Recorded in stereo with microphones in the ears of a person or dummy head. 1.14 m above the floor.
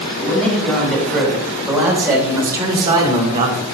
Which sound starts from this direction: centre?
A man speaking, at 0.2 s.